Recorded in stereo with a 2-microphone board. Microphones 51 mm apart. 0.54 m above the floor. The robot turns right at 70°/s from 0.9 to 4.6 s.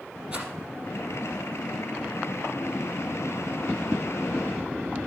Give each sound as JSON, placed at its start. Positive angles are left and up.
{"t": 0.3, "sound": "a rattle", "side_deg": -20, "distance_m": 3.5}